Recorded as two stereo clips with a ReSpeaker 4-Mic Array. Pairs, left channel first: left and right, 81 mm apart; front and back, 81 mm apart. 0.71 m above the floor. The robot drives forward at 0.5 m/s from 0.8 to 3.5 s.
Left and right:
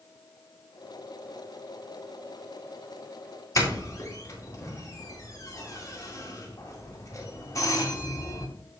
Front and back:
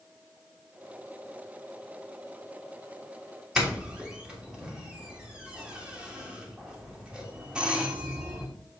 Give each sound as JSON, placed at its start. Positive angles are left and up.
{"t": 3.5, "sound": "a doorbell", "azimuth_deg": 105, "distance_m": 1.6}